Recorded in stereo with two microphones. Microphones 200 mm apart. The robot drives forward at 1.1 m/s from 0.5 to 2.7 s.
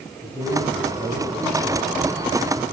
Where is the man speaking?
15° right (ahead or behind), 10 m; by 2.6 s 20° right (ahead or behind), 8 m.